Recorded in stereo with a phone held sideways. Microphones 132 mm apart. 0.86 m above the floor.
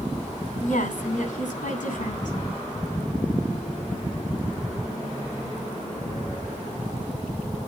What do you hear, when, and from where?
0.6 s a woman speaking: 80° left, 8.5 m